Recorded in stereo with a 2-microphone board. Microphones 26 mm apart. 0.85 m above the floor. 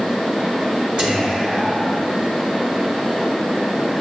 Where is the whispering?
30° right (ahead or behind), 1.0 m.